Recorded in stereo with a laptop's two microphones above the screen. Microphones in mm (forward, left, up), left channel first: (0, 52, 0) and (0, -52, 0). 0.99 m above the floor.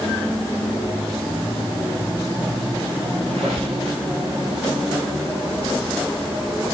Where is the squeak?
80° right, 5.5 m.